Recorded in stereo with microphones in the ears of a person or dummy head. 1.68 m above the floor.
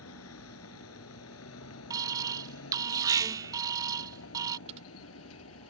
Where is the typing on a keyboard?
35° right (ahead or behind).